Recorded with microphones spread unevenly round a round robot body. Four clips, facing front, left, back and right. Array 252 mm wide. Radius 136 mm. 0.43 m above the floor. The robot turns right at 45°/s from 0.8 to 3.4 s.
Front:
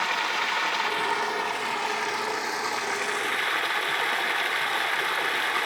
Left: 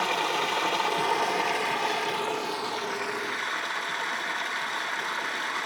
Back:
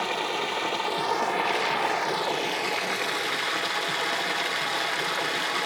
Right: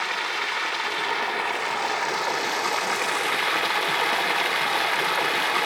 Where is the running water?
145° left, 1.1 m; by 5.7 s 100° right, 1.1 m.